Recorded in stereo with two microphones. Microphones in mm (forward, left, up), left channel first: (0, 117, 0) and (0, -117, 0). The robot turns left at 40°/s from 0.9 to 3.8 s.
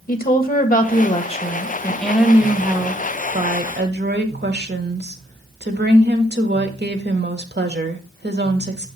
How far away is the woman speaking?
About 1.2 m.